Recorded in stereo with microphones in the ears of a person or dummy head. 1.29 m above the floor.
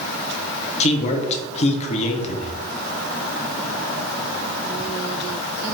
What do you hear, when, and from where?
0.8 s a man speaking: 40° left (ahead or behind), 0.6 m